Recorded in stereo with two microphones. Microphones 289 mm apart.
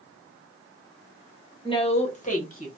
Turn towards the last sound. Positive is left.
turn(degrees=30)  # may be behind; listen again after turning